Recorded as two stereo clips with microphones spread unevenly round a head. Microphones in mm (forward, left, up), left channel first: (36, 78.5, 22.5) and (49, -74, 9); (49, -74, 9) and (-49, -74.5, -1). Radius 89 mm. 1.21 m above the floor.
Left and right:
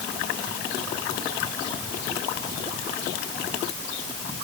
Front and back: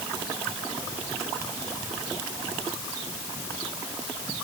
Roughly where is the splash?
No splash in this recording.